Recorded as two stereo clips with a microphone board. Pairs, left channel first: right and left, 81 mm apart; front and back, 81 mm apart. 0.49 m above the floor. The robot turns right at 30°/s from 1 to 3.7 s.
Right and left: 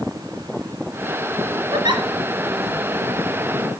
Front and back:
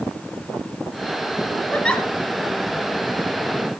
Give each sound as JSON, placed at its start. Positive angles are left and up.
{"t": 1.7, "sound": "a giggle", "azimuth_deg": 70, "distance_m": 2.0}